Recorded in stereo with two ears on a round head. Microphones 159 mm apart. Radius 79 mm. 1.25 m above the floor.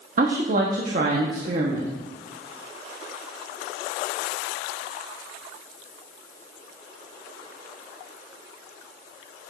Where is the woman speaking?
50° right (ahead or behind), 1.1 m.